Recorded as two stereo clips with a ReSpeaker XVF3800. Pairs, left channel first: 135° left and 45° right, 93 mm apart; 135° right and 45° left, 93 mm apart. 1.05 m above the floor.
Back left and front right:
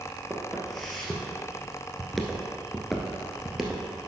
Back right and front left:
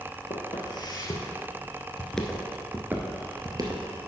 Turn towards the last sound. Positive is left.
turn(degrees=45)